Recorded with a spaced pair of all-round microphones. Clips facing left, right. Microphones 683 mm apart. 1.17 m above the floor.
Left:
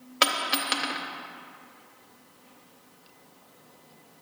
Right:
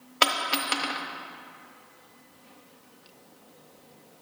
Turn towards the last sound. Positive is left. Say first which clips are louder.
# even
turn(degrees=25)  # may be behind; listen again after turning